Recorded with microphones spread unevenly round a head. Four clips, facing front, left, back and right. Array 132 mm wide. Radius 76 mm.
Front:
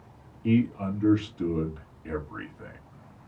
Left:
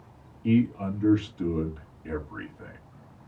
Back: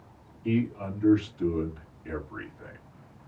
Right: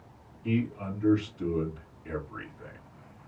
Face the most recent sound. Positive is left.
turn(degrees=40)